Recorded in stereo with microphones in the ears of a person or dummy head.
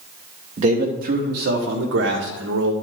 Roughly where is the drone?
No drone in this recording.